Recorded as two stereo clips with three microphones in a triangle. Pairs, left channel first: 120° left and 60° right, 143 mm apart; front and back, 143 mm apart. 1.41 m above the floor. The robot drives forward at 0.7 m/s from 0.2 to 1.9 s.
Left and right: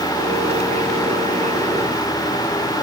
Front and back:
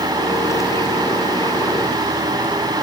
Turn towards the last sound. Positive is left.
No sound to turn to.